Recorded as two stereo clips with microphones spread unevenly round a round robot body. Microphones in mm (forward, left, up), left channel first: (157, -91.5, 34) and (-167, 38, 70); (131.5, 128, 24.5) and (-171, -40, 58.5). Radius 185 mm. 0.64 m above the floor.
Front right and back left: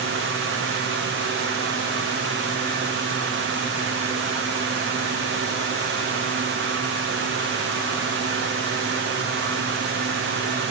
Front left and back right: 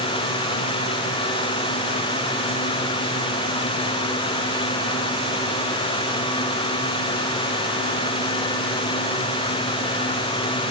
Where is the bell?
No bell in this recording.